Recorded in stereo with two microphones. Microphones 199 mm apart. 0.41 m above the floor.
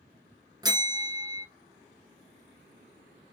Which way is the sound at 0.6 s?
20° right (ahead or behind).